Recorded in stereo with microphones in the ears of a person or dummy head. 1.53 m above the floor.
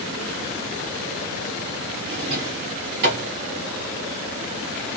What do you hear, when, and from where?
2.1 s a drawer: 60° right (ahead or behind), 3 m